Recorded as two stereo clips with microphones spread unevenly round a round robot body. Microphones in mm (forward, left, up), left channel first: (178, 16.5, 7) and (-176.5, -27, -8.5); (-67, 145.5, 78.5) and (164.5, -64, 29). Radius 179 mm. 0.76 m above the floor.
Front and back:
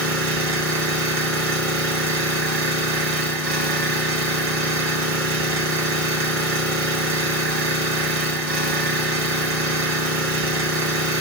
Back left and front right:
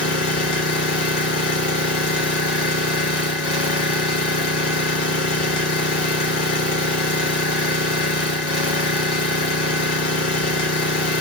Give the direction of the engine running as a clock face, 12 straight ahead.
7 o'clock.